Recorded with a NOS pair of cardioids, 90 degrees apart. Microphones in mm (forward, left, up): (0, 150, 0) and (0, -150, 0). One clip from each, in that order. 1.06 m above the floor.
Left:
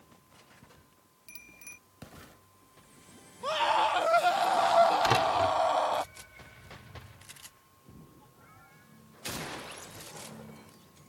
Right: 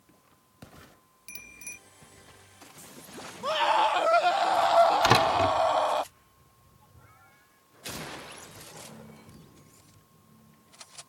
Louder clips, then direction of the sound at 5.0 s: Right 3 dB; 45° right.